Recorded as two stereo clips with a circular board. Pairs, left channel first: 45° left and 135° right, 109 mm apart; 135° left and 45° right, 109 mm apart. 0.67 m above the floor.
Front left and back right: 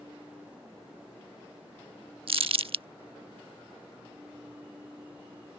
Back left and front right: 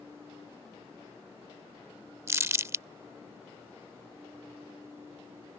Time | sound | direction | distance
2.3 | crumpling | 110° right | ?